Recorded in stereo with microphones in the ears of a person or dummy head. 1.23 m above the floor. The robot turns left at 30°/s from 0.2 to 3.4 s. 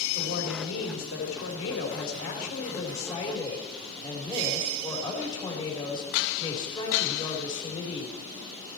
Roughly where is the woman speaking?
Behind left.